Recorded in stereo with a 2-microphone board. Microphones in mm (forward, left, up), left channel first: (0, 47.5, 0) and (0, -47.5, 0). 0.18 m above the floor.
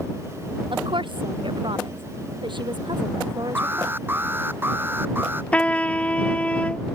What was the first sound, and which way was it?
A woman speaking, 70° right (ahead or behind).